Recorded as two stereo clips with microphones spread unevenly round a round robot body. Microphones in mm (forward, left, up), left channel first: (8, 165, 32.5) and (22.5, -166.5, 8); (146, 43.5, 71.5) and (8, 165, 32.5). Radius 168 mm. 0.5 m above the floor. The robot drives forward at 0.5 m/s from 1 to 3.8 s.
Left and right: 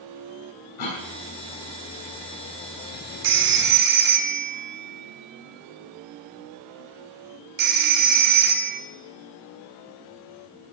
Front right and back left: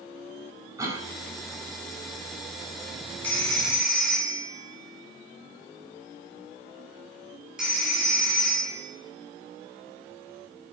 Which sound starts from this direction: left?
A cough, at 0.8 s.